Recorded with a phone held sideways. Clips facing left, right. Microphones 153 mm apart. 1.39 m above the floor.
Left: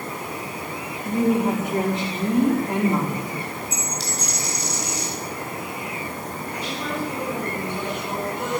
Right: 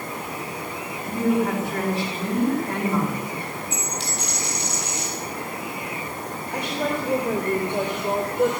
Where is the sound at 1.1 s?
20° left (ahead or behind), 4 m.